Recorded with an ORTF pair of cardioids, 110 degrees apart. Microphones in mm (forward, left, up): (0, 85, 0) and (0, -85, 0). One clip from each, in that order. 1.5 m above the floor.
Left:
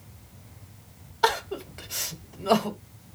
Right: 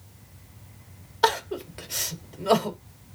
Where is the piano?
No piano in this recording.